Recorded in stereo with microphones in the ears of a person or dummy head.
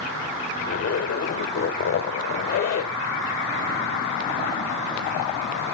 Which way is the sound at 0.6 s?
50° left (ahead or behind).